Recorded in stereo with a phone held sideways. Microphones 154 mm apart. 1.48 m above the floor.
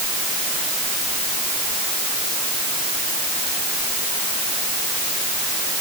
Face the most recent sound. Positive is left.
No sound to turn to.